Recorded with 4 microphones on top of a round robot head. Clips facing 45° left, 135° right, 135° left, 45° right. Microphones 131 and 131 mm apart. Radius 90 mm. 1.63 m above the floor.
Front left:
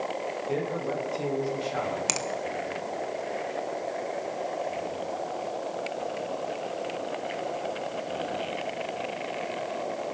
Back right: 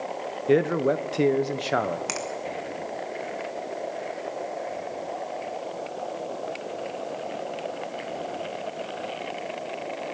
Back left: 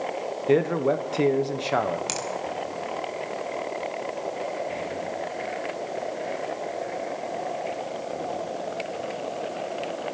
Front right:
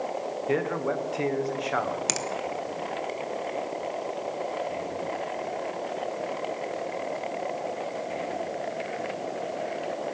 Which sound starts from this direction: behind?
A man speaking, at 0.5 s.